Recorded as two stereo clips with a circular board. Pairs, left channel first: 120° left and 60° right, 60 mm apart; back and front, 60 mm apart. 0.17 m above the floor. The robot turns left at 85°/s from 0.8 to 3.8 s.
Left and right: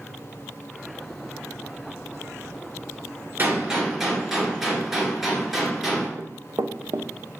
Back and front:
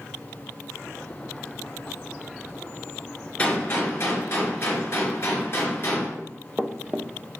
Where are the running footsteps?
70° right, 0.7 m.